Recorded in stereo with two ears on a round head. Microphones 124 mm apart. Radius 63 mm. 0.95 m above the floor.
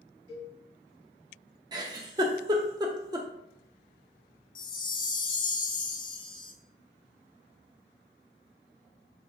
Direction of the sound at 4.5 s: 35° left (ahead or behind).